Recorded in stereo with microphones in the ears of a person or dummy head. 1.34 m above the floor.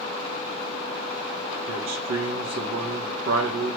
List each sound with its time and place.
1.7 s a man speaking: 50° right (ahead or behind), 1.8 m